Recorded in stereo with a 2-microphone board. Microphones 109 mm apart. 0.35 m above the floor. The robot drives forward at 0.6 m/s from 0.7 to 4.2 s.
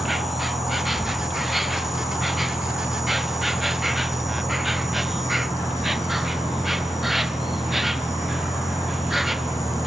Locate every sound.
0.0 s an insect: centre (ahead or behind)